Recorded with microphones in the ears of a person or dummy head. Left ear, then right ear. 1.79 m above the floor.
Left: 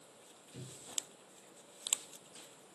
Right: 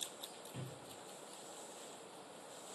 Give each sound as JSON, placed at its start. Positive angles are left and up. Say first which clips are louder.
{"t": 0.5, "sound": "a cupboard door", "louder": "left 5 dB", "side_deg": 5, "distance_m": 3.5}